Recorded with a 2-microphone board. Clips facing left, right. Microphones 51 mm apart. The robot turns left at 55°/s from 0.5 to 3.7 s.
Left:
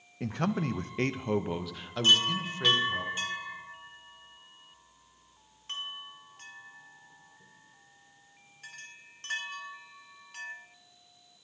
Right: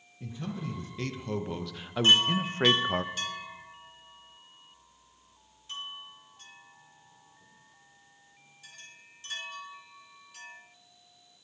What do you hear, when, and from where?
0.2 s a man speaking: 70° left, 0.6 m; by 3.0 s 70° right, 0.6 m
2.0 s a chime: 30° right (ahead or behind), 1.8 m; by 10.6 s 55° left (ahead or behind), 1.8 m